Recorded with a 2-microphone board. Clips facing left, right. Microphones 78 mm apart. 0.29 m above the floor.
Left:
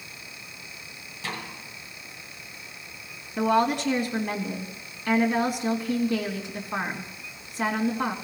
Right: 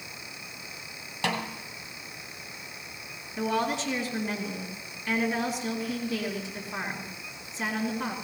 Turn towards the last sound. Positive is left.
turn(degrees=65)  # may be behind; listen again after turning